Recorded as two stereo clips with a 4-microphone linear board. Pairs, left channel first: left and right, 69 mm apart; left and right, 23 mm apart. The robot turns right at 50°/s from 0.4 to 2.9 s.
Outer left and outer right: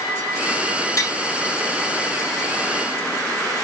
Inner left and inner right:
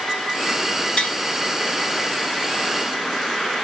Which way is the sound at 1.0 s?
50° left (ahead or behind).